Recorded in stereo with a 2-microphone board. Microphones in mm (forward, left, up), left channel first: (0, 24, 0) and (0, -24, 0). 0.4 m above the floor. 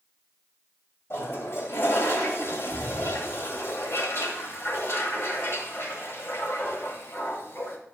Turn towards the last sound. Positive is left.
turn(degrees=60)  # may be behind; listen again after turning